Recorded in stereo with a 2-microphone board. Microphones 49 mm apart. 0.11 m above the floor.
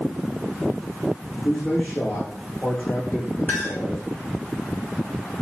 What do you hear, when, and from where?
1.4 s a man speaking: 35° left (ahead or behind), 6 m
3.5 s a clink: 40° left (ahead or behind), 6.5 m